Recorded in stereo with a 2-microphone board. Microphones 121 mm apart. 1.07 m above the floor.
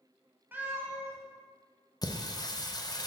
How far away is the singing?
About 0.6 m.